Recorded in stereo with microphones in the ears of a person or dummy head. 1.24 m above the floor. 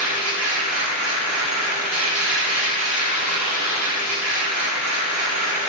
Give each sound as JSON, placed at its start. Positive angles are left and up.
{"t": 0.0, "sound": "a machine running", "side_deg": -65, "distance_m": 1.6}